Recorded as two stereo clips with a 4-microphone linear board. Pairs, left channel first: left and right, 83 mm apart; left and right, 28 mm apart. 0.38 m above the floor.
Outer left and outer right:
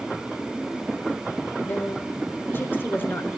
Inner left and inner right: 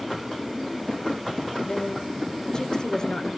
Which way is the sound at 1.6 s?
25° left (ahead or behind).